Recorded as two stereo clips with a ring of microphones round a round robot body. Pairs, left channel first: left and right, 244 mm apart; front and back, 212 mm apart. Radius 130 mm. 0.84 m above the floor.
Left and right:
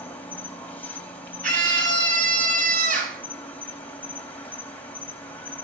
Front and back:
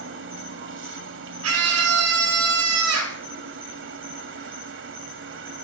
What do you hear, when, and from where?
0.0 s an insect: 175° left, 2.5 m
1.4 s a scream: 150° right, 9 m